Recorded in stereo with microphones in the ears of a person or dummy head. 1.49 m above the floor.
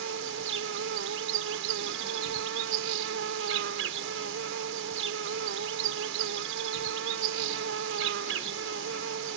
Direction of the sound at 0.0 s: 80° right.